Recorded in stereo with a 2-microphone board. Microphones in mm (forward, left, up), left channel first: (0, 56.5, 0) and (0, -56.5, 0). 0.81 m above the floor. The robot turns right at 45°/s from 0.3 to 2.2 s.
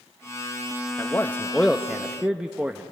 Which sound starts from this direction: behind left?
A man speaking, at 1.0 s.